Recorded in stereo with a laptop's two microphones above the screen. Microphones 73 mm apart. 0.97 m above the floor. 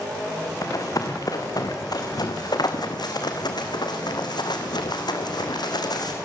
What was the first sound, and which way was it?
Running footsteps, 50° left (ahead or behind).